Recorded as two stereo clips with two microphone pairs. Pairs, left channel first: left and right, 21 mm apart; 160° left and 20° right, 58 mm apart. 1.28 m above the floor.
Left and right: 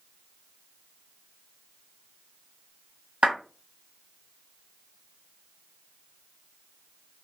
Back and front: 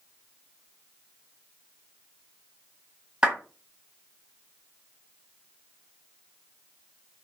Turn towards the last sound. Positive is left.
turn(degrees=-95)